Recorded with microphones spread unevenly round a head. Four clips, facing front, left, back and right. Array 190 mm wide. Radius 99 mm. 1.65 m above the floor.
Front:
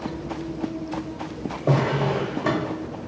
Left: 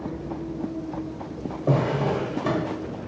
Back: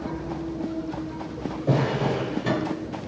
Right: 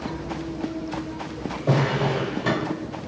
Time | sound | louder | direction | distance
1.7 | a drawer | even, front 2 dB | 25° left | 1.2 m